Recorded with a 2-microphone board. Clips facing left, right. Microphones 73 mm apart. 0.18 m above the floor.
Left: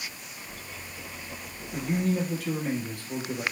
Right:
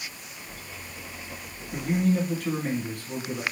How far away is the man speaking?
About 2 m.